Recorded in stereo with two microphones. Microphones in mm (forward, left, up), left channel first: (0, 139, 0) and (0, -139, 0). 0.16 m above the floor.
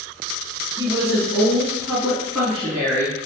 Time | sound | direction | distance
0.8 | a woman speaking | 20° right (ahead or behind) | 1.5 m